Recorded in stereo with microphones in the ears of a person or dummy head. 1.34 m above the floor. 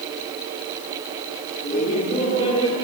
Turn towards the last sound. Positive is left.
turn(degrees=25)  # may be behind; listen again after turning